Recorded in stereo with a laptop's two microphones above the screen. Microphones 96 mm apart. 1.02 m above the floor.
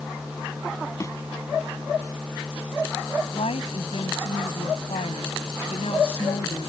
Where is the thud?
30° left (ahead or behind).